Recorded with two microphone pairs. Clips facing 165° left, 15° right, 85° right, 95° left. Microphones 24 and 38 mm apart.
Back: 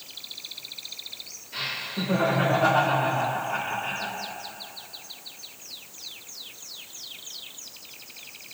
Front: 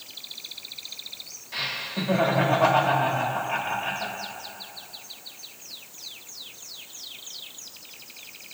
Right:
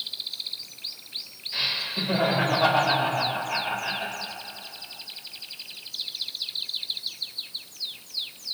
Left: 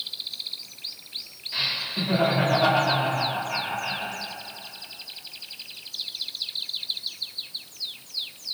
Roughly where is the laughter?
Ahead.